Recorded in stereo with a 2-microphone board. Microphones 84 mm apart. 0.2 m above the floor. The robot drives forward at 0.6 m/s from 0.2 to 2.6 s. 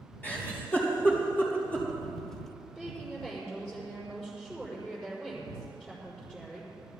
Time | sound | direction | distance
0.2 | a giggle | 20° left (ahead or behind) | 3.5 m
2.8 | a woman speaking | 5° left (ahead or behind) | 5 m